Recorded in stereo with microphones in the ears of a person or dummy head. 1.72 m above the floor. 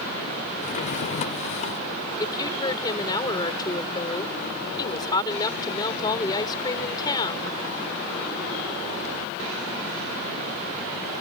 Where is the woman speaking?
20° left (ahead or behind).